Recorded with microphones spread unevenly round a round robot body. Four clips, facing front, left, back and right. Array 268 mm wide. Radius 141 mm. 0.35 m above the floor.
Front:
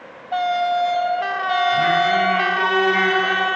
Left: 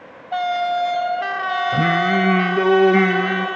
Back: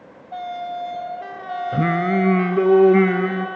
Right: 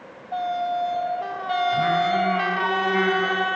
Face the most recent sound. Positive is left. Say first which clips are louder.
# left 4 dB, back 1 dB
turn(degrees=140)